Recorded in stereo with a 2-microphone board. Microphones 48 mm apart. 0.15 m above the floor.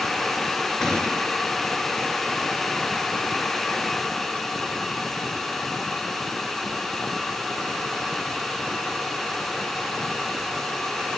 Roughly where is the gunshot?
Centre.